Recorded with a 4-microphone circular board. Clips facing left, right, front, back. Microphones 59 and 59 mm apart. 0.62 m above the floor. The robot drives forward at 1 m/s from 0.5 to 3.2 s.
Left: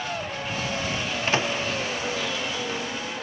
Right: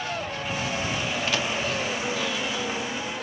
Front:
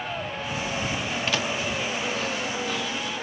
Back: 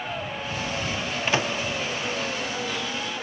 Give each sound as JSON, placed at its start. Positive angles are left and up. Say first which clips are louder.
{"t": 1.3, "sound": "a microwave", "louder": "left 5 dB, back 4 dB", "azimuth_deg": 120}